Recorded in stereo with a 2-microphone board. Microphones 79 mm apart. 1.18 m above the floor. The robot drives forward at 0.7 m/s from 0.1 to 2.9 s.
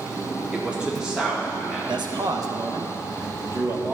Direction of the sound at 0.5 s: 15° right (ahead or behind).